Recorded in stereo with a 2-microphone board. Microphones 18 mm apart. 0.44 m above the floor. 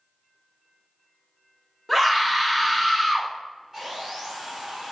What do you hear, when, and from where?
1.9 s a scream: centre (ahead or behind), 1.0 m
3.7 s sawing: 25° right (ahead or behind), 2.0 m